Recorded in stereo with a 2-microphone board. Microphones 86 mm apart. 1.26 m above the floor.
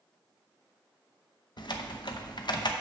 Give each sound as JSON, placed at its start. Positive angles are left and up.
{"t": 1.6, "sound": "typing on a keyboard", "side_deg": 60, "distance_m": 0.8}